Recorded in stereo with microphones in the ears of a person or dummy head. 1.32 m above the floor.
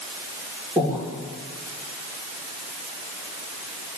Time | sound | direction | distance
0.8 | breathing | 10° right (ahead or behind) | 2.5 m